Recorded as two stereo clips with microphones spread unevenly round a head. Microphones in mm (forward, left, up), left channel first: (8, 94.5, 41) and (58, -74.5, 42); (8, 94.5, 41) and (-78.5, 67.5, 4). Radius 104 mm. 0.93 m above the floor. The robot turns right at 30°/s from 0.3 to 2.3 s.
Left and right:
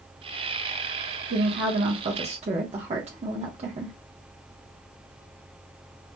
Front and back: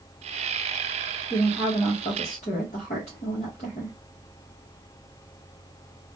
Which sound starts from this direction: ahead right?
A woman speaking, at 1.3 s.